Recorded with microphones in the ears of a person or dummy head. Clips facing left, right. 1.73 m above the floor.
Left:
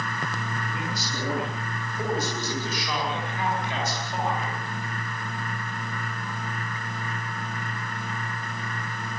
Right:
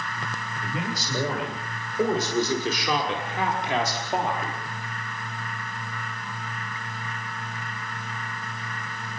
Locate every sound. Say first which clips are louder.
0.6 s a man speaking: right 1 dB; 70° right (ahead or behind), 9 m; by 4.6 s 55° right (ahead or behind), 4.5 m